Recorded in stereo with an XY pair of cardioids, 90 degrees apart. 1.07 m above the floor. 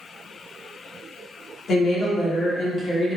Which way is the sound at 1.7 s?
60° left.